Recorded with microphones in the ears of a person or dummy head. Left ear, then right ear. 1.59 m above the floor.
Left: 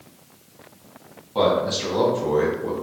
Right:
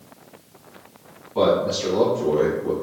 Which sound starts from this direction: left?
A man speaking, at 1.4 s.